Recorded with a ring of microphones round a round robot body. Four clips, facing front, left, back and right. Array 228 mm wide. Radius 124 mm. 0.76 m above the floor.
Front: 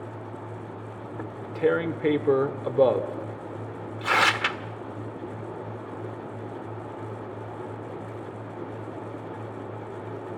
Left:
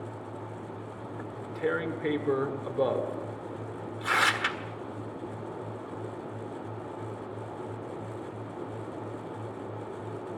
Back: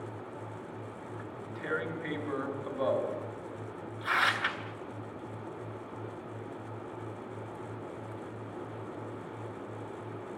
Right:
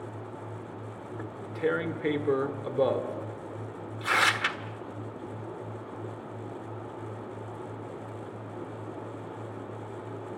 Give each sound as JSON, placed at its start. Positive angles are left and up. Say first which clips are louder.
{"t": 1.2, "sound": "tearing paper", "louder": "right 2 dB, front 19 dB", "azimuth_deg": -5, "distance_m": 1.5}